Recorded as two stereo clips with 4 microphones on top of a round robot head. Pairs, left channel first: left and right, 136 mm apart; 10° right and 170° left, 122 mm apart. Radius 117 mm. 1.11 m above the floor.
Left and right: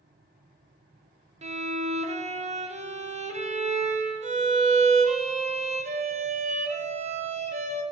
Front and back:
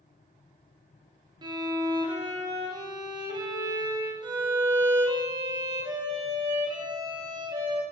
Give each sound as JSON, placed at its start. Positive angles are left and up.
{"t": 1.4, "sound": "a violin", "azimuth_deg": -130, "distance_m": 0.6}